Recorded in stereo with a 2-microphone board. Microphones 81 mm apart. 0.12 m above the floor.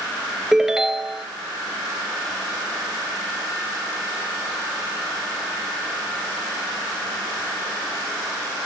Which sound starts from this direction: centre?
A ringtone, at 0.5 s.